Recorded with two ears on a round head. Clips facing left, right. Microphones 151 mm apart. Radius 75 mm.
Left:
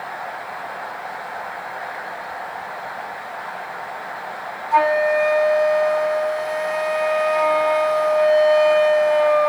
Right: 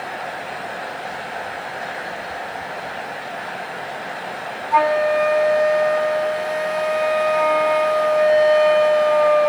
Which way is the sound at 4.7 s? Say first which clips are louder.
Even; centre (ahead or behind).